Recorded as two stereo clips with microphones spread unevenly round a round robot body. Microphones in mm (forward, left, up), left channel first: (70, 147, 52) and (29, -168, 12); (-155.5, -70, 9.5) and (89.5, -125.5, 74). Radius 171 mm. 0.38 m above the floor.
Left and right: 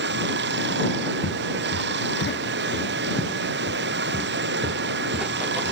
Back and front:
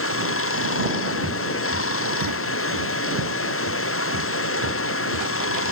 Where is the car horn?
I don't hear a car horn.